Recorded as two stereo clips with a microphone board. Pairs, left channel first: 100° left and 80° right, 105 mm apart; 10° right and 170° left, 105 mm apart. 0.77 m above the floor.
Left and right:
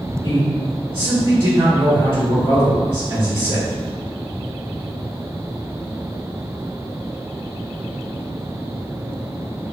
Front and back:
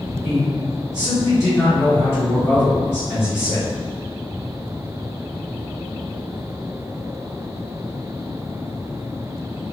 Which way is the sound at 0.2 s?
70° right.